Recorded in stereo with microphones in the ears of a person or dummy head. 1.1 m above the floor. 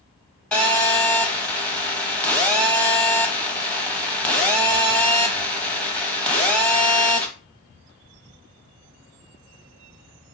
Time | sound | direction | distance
0.5 | a phone buzzing | 10° left (ahead or behind) | 0.9 m